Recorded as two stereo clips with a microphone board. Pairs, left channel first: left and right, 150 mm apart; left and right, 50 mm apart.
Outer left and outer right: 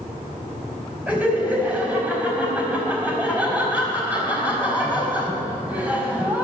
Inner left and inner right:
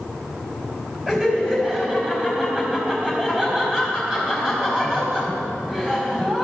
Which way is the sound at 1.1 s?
10° right (ahead or behind).